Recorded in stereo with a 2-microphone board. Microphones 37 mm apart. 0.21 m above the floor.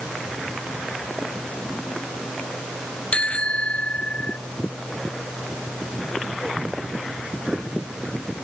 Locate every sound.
3.1 s a bicycle bell: 35° left (ahead or behind); by 4.4 s 40° left (ahead or behind)